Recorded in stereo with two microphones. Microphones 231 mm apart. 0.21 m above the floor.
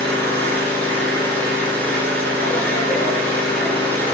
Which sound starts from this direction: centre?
An engine running, at 0.0 s.